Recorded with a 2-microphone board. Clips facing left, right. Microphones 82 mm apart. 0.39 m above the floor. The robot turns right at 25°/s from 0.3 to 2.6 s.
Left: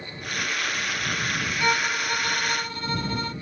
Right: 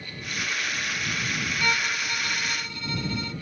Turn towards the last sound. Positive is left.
turn(degrees=50)  # may be behind; listen again after turning